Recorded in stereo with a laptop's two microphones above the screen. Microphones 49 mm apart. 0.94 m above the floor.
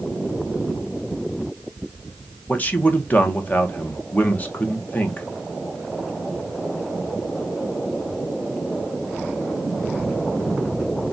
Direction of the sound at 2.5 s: 30° left (ahead or behind).